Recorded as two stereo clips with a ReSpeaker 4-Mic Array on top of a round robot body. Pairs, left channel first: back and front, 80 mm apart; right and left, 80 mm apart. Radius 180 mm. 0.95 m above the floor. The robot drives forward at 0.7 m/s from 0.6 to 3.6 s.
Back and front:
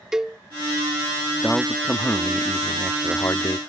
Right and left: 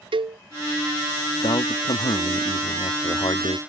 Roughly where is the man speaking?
Right.